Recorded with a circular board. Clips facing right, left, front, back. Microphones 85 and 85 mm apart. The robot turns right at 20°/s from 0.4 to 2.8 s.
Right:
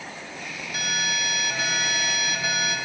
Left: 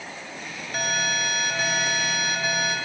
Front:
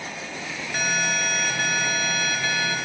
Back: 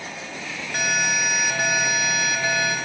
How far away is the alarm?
About 1.3 m.